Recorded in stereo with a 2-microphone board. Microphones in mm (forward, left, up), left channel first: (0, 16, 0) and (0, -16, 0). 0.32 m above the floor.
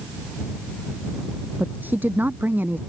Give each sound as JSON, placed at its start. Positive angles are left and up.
{"t": 1.6, "sound": "a woman speaking", "side_deg": -75}